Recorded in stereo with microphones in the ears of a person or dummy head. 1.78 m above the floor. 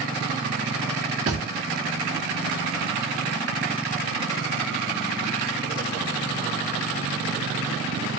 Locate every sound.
1.3 s a thud: 35° right (ahead or behind), 1.3 m